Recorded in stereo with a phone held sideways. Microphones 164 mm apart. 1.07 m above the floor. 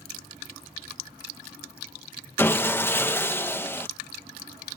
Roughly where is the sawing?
Centre.